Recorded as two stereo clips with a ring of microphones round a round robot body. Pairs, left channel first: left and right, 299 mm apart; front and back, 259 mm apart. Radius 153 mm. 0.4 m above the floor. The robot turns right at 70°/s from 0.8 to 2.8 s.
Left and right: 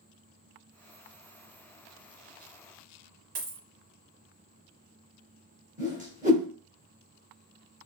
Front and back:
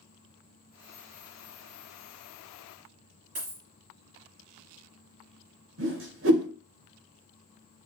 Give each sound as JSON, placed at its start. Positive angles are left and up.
{"t": 3.4, "sound": "a dropped coin", "azimuth_deg": -115, "distance_m": 1.2}
{"t": 5.8, "sound": "a whoosh", "azimuth_deg": -150, "distance_m": 1.2}